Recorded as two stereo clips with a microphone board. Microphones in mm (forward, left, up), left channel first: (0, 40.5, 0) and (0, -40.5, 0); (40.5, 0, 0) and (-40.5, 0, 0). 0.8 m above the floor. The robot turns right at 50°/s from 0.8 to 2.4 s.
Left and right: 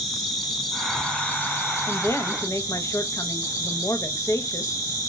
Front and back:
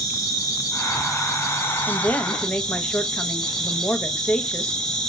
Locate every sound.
0.0 s an insect: straight ahead, 1.4 m; by 5.1 s 80° left, 1.4 m
1.9 s a woman speaking: 45° left, 0.5 m; by 4.8 s 70° left, 0.5 m